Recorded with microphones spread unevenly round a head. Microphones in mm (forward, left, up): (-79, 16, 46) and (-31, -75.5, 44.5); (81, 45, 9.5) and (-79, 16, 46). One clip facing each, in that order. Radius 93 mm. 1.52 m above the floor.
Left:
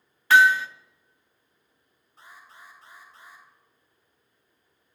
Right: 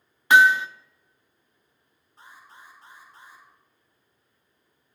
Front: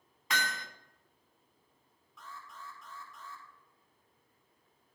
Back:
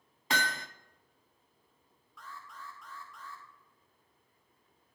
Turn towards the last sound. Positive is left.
turn(degrees=80)